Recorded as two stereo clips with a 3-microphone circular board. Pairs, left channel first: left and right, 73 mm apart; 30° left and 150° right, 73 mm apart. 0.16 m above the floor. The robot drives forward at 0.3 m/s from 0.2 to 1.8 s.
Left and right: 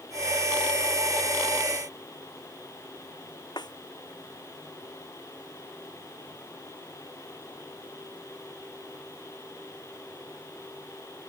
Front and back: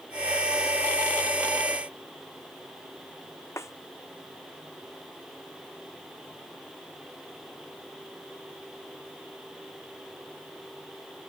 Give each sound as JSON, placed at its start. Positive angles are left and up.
{"t": 3.6, "sound": "a snare drum", "azimuth_deg": 80}